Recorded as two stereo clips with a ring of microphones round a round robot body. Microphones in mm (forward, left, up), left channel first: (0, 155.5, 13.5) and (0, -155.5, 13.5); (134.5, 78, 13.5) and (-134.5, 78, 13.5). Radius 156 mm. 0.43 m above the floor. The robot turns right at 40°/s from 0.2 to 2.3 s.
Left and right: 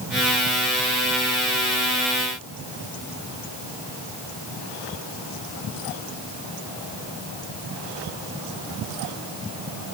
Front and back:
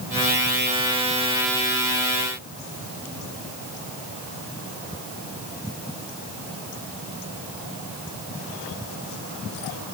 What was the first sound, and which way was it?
Only background noise.